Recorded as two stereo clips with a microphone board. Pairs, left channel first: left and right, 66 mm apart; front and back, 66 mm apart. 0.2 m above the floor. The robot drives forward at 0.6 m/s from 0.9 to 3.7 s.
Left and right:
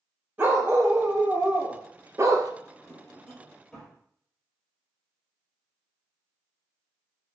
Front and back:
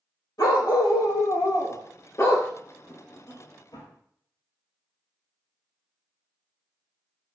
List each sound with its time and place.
0.4 s a dog barking: 25° right, 1.9 m; by 2.5 s 50° right, 1.1 m
2.6 s a drawer: 10° left, 3.5 m